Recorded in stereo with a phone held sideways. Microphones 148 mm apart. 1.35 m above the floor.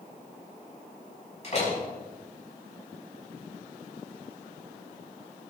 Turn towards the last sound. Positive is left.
turn(degrees=45)  # may be behind; listen again after turning